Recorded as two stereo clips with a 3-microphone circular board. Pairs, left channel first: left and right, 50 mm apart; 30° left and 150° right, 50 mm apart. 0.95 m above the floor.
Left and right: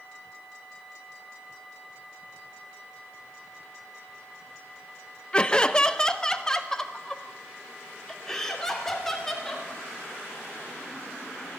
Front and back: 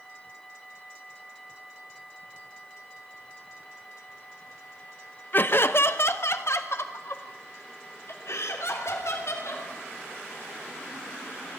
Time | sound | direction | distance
5.3 | laughter | 30° left | 0.9 m